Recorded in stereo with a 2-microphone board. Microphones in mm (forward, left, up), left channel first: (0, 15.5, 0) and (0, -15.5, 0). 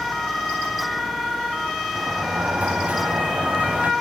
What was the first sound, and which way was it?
A sliding door, 60° right (ahead or behind).